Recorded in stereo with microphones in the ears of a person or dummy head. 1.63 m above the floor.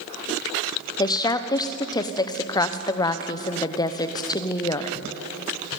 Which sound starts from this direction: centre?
A woman speaking, at 1.0 s.